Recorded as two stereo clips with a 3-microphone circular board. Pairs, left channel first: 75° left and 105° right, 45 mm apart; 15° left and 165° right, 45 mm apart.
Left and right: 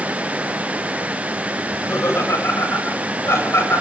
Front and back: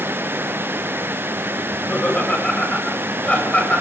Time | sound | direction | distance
1.7 | laughter | 75° left | 7.5 m